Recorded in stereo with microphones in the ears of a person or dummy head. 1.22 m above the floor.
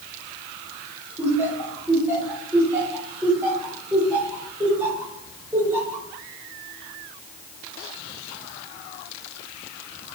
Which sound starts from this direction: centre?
Laughter, at 1.2 s.